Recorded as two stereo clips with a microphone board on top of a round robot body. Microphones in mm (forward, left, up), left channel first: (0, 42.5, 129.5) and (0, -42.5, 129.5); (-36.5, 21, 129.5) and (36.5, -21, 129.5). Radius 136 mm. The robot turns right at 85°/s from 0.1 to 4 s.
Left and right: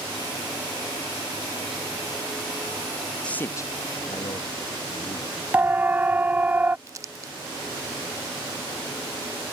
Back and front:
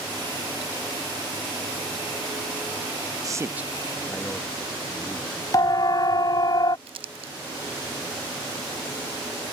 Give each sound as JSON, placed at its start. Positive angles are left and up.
{"t": 3.2, "sound": "a man speaking", "azimuth_deg": 10}
{"t": 5.5, "sound": "a siren", "azimuth_deg": -160}
{"t": 6.9, "sound": "crumpling", "azimuth_deg": -35}